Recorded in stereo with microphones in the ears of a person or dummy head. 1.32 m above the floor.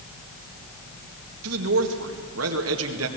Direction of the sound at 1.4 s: 80° right.